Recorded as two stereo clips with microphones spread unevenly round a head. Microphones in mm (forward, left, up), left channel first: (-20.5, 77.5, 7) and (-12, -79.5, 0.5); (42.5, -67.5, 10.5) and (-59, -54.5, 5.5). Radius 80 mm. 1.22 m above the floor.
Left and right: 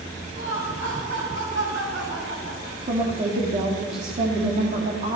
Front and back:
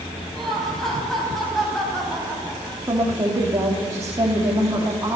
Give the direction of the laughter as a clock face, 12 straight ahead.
3 o'clock.